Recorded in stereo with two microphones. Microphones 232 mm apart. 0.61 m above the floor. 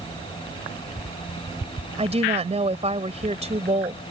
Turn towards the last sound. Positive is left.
turn(degrees=-25)  # may be behind; listen again after turning